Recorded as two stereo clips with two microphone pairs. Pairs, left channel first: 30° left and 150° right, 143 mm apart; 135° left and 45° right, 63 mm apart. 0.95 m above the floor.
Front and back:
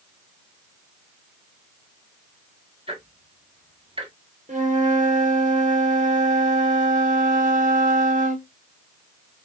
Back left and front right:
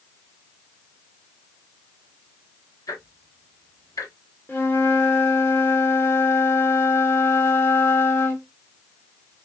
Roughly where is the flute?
Behind.